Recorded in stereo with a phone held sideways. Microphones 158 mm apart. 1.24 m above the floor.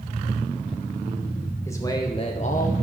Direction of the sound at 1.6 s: 15° left (ahead or behind).